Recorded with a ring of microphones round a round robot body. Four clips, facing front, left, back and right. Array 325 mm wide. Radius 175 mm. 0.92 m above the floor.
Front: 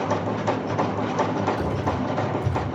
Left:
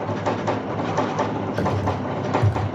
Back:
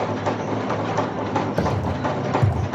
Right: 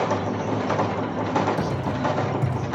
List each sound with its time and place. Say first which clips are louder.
1.6 s typing on a keyboard: left 2 dB, back 2 dB; 165° left, 6 m